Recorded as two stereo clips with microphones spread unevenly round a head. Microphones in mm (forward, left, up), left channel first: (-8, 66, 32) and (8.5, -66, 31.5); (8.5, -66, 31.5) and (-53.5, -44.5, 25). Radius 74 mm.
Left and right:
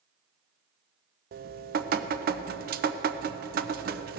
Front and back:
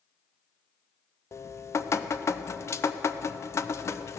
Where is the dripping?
70° right, 0.6 m.